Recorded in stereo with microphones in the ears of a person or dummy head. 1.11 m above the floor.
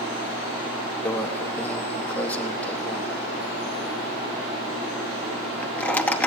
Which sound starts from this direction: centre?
A microwave, at 1.1 s.